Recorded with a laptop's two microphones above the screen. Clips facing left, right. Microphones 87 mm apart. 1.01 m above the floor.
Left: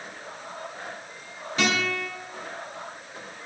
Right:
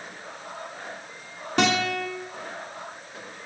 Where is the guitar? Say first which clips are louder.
Right 3 dB; 80° right, 2.5 m.